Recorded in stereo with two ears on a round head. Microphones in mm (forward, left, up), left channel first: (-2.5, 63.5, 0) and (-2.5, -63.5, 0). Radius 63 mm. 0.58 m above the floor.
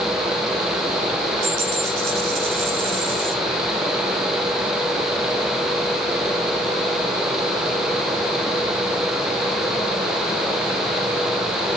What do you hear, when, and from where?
1.4 s a dropped coin: 65° right (ahead or behind), 6 m